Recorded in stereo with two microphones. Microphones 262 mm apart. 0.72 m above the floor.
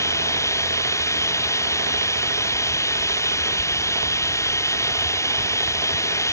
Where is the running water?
10° left (ahead or behind).